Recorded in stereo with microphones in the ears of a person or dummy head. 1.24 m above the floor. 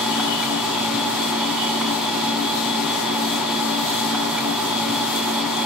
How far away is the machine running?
About 4.5 m.